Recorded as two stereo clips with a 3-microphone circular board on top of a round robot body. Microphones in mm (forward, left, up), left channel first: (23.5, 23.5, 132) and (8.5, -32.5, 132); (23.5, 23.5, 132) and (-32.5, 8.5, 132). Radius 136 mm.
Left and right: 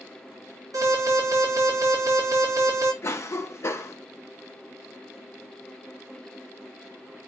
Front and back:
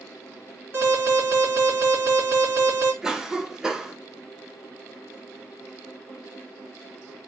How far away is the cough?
About 1.2 m.